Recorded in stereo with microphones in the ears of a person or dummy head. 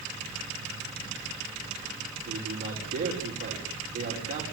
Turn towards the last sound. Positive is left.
turn(degrees=-45)  # may be behind; listen again after turning